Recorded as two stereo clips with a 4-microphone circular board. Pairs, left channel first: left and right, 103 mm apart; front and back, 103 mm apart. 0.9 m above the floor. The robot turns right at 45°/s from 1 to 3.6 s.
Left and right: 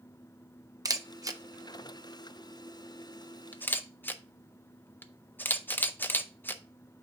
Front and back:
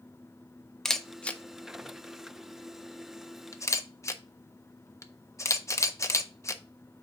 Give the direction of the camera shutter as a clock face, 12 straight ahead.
3 o'clock.